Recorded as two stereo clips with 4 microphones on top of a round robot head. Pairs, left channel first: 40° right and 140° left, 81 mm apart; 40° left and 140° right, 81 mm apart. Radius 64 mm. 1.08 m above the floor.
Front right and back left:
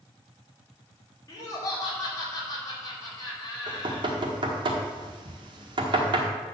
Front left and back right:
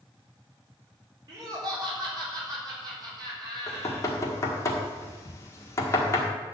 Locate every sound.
1.3 s laughter: 90° right, 4 m
3.7 s knocking: 100° left, 1.6 m